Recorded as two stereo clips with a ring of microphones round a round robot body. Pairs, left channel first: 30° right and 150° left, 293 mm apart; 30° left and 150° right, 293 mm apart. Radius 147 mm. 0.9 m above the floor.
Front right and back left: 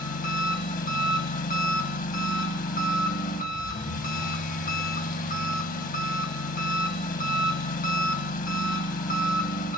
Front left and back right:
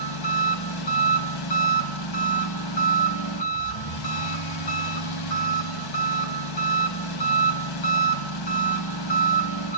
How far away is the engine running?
About 2 m.